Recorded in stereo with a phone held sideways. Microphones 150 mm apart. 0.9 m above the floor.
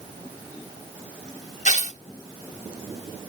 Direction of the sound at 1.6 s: 60° left (ahead or behind).